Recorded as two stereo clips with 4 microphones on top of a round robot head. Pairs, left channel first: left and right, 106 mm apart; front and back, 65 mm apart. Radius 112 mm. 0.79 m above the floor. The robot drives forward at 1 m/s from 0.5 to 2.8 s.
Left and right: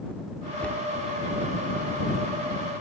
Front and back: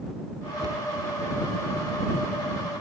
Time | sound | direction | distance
0.6 | a cupboard door | 170° left | ?